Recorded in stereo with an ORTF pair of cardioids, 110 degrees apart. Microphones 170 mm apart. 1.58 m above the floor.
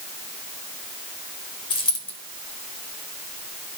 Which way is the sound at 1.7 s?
30° left.